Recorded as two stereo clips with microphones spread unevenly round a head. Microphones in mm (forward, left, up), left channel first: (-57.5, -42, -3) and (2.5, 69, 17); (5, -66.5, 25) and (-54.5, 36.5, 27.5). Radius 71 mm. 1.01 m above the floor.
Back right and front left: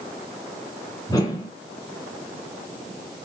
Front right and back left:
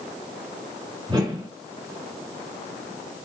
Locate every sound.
1.1 s a whoosh: straight behind, 4 m